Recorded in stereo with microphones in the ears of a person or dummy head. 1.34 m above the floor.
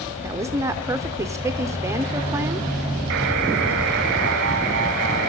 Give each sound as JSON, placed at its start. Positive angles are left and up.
{"t": 0.2, "sound": "a woman speaking", "side_deg": -20, "distance_m": 0.5}
{"t": 3.1, "sound": "a buzzer", "side_deg": -60, "distance_m": 0.8}